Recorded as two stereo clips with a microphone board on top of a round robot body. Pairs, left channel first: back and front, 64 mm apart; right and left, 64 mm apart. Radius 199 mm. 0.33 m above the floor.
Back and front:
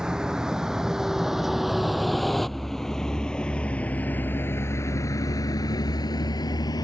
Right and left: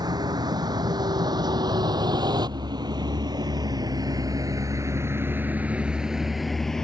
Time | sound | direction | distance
0.0 | a vehicle | 80° left | ?